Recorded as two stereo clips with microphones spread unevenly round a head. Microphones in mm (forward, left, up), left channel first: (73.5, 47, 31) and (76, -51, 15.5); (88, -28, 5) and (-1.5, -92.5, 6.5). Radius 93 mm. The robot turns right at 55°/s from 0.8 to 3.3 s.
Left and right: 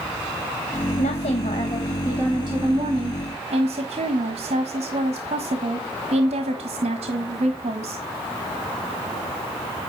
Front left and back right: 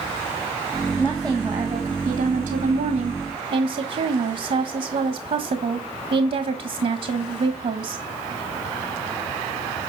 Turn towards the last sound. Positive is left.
turn(degrees=-125)